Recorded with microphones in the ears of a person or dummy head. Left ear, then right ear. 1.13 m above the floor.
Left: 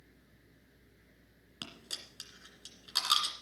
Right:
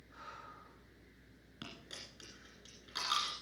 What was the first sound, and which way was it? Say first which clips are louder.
A dropped coin: left 6 dB; 30° left (ahead or behind).